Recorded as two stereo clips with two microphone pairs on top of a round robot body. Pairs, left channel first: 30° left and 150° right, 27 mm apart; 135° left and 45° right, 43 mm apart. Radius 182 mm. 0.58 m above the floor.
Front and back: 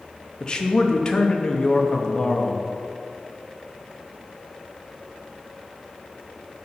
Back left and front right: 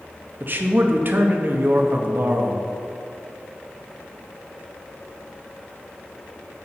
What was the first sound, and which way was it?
A man speaking, 25° right.